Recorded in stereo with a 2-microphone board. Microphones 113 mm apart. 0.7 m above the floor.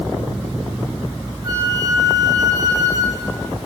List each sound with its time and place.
1.4 s a flute: 30° right (ahead or behind), 9 m